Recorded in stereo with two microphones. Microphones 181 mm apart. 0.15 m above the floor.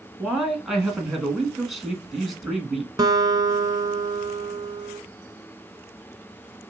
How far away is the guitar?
About 0.6 m.